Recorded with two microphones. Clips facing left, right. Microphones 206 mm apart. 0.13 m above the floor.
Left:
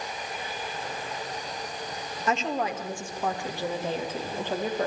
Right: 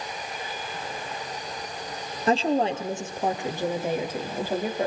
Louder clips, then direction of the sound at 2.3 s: Right 6 dB; 35° right (ahead or behind).